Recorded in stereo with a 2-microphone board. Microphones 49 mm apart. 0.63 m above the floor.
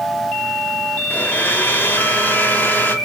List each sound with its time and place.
1.1 s a blender: 40° left (ahead or behind), 1.2 m